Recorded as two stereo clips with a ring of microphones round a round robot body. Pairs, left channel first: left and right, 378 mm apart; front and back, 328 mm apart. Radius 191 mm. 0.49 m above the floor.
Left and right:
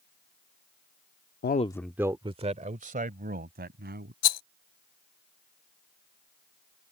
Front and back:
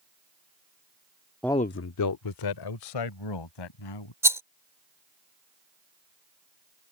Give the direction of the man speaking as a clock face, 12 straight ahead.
9 o'clock.